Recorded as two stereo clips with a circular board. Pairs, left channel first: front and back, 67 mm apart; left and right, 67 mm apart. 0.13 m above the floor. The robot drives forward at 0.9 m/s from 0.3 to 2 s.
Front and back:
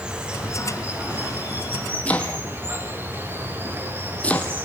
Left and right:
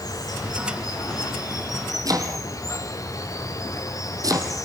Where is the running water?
105° left, 4.5 m; by 4.7 s 120° left, 5 m.